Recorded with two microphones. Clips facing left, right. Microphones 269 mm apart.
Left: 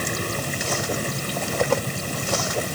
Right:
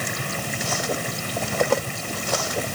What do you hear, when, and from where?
Only background noise.